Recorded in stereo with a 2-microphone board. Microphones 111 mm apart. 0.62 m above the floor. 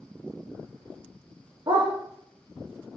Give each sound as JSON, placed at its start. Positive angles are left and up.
{"t": 1.7, "sound": "a dog barking", "side_deg": -45, "distance_m": 7.0}